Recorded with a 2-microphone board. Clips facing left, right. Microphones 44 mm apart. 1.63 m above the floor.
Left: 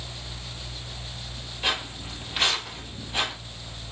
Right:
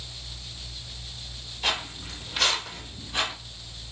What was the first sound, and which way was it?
Footsteps, 15° left (ahead or behind).